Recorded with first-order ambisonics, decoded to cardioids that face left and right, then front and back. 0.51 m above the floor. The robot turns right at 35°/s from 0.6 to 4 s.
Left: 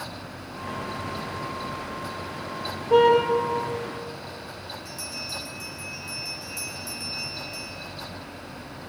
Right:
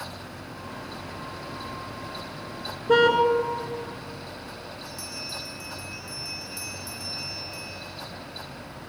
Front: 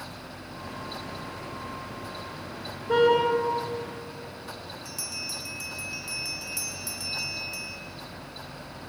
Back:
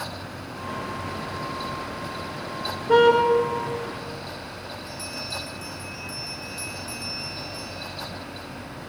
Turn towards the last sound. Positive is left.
turn(degrees=0)